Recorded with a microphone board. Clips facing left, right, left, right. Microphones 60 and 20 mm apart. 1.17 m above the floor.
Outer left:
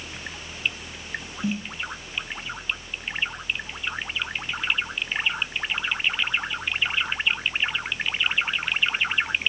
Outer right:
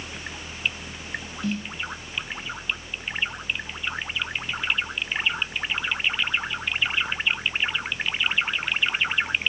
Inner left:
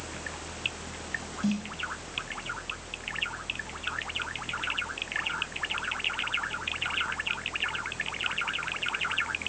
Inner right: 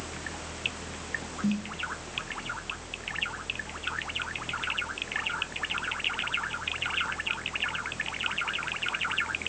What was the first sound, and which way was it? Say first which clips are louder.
A snare drum: outer left 1 dB, even; 20° left (ahead or behind).